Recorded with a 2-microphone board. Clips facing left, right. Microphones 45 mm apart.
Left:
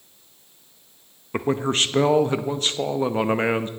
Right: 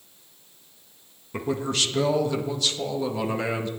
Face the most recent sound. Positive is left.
turn(degrees=35)  # may be behind; listen again after turning